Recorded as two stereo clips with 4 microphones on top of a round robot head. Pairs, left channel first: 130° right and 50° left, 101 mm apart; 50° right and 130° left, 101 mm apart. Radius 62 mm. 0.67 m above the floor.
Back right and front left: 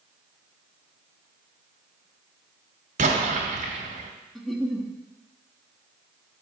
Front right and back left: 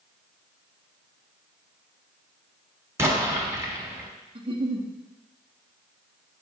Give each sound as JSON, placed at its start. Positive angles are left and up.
{"t": 3.0, "sound": "an explosion", "azimuth_deg": 65, "distance_m": 1.5}
{"t": 4.3, "sound": "a giggle", "azimuth_deg": 140, "distance_m": 1.2}